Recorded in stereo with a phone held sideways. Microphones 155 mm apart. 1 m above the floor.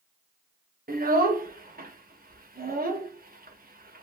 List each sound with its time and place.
0.9 s a child speaking: 70° right (ahead or behind), 0.9 m